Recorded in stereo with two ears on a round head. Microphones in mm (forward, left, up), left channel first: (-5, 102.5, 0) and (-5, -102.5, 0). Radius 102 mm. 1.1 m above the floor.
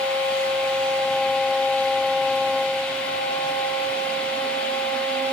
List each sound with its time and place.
Only background noise.